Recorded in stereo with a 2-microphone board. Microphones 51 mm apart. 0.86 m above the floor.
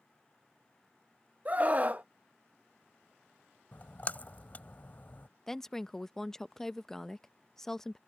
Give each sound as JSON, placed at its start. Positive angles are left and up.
{"t": 1.4, "sound": "a scream", "side_deg": -30}
{"t": 3.7, "sound": "a splash", "side_deg": 35}
{"t": 5.5, "sound": "a woman speaking", "side_deg": 10}